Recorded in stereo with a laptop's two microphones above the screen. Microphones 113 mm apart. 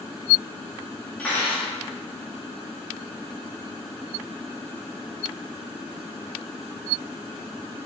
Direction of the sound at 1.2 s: 10° left (ahead or behind).